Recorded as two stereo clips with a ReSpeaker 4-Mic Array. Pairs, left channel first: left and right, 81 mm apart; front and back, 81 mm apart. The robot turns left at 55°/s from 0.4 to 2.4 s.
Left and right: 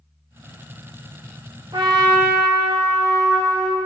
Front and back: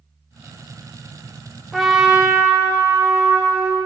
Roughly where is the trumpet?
Right.